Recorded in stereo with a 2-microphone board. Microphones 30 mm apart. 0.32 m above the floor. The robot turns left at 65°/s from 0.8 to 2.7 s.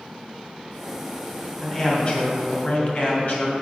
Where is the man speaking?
165° left, 2 m; by 3.5 s 95° left, 2 m.